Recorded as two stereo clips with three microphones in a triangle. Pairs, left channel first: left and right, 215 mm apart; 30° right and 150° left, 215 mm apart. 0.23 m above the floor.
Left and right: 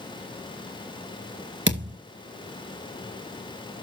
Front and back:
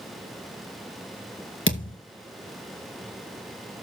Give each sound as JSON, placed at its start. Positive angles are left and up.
{"t": 1.7, "sound": "a thud", "azimuth_deg": -55, "distance_m": 2.0}